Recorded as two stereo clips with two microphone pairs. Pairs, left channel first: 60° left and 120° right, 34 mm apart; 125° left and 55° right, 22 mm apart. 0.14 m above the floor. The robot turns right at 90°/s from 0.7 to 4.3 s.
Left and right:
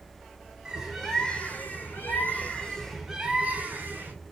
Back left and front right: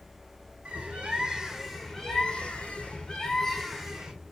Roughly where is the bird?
Ahead right.